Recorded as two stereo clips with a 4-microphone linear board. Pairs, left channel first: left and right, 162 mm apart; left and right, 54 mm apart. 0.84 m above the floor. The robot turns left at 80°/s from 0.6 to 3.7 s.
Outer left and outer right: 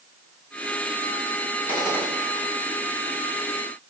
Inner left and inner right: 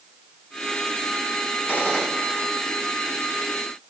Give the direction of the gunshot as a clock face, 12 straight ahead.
11 o'clock.